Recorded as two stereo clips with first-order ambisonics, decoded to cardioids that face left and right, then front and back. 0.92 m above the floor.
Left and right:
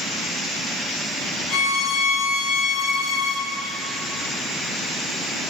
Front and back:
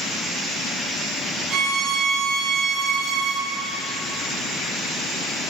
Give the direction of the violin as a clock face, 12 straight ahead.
8 o'clock.